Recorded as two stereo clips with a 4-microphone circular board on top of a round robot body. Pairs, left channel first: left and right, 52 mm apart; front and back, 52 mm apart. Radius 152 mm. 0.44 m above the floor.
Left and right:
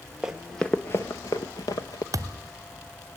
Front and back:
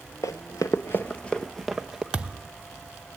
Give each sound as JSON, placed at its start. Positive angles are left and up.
{"t": 0.2, "sound": "running footsteps", "azimuth_deg": -10, "distance_m": 0.6}
{"t": 2.1, "sound": "a thud", "azimuth_deg": -105, "distance_m": 0.5}